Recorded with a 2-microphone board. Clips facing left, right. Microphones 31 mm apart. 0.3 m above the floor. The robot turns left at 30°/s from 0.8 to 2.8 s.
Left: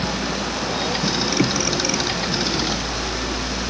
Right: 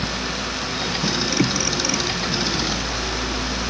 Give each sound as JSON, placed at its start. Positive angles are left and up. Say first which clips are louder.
{"t": 0.0, "sound": "a vehicle", "louder": "left 2 dB", "azimuth_deg": 80}